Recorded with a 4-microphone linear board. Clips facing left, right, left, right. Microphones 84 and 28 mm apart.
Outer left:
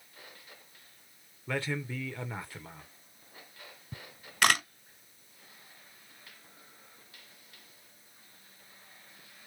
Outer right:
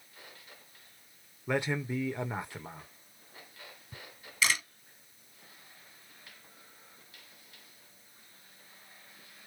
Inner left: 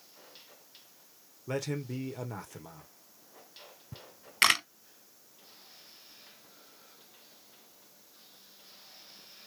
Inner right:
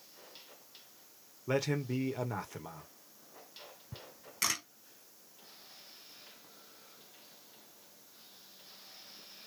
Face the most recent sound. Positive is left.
turn(degrees=65)  # may be behind; listen again after turning